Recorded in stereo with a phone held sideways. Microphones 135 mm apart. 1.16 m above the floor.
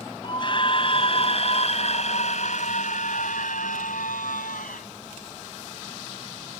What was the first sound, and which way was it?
A scream, 35° left (ahead or behind).